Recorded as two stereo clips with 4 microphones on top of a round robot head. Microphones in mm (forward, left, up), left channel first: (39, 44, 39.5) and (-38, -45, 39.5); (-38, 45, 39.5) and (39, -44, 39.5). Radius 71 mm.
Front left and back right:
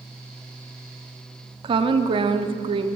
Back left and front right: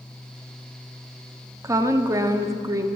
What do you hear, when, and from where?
1.6 s a woman speaking: 105° right, 0.8 m